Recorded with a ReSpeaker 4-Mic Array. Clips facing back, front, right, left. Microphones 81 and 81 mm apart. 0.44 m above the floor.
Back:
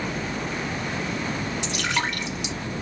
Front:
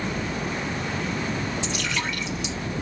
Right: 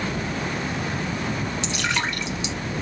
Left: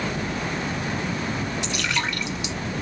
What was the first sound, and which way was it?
Dripping, 150° right.